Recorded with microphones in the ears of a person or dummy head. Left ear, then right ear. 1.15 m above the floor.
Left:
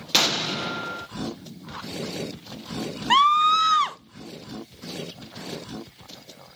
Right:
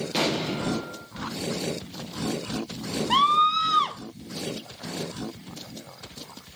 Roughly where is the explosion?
Left.